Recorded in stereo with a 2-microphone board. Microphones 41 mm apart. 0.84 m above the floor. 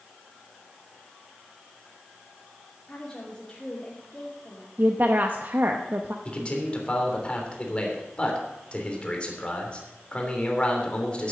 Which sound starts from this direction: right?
A woman speaking, at 4.8 s.